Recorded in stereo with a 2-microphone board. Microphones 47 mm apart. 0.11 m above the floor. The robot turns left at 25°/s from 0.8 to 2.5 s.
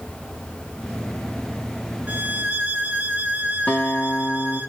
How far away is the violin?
About 0.8 m.